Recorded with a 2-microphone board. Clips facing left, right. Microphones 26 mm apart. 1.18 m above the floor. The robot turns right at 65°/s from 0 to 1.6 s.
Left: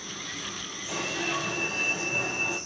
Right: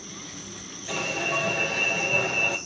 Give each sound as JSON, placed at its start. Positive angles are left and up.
{"t": 0.9, "sound": "an alarm", "azimuth_deg": -135, "distance_m": 4.5}